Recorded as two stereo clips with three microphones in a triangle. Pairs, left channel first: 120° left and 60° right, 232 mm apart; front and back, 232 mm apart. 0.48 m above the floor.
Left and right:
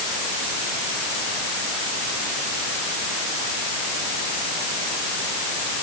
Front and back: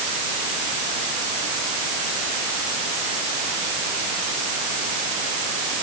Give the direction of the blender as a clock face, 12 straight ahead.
I don't hear a blender.